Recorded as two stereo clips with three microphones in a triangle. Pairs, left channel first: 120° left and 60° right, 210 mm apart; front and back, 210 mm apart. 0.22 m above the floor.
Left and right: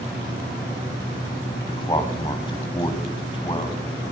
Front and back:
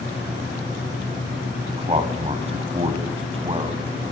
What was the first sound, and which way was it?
A man speaking, 160° left.